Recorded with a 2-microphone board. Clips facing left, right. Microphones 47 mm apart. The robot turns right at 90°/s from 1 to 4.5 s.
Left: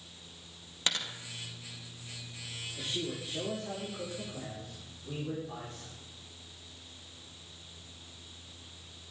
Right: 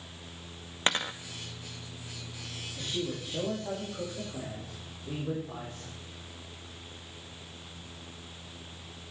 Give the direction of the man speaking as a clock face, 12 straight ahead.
6 o'clock.